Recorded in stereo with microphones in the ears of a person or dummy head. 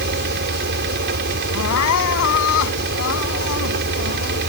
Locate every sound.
0.0 s a fan: 60° right (ahead or behind)
1.5 s crying: 75° left (ahead or behind)